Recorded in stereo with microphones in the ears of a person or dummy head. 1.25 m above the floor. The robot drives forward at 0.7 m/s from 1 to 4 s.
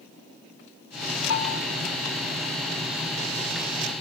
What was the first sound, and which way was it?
A bell, 80° left.